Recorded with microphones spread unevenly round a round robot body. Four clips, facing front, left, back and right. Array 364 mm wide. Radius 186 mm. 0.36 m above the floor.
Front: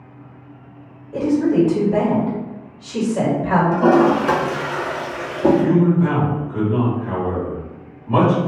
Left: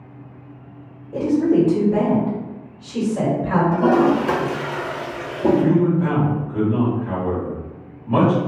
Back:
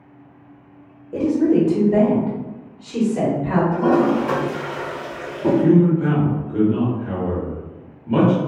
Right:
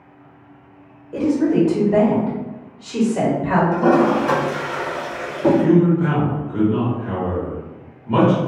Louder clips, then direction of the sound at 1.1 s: Even, even; straight behind.